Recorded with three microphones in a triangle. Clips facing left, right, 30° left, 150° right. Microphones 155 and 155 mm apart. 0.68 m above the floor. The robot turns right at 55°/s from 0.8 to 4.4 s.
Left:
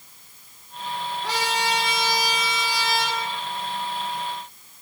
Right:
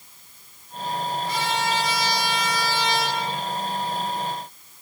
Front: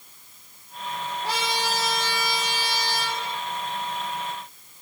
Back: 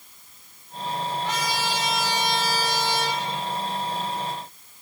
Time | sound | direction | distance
1.2 | a trumpet | 85° left | 7 m